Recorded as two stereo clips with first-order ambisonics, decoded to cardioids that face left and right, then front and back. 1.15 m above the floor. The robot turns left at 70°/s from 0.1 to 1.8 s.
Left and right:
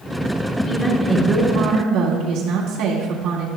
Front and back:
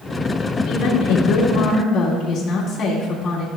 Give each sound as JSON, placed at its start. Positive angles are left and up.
{"t": 0.6, "sound": "a woman speaking", "azimuth_deg": 25, "distance_m": 1.9}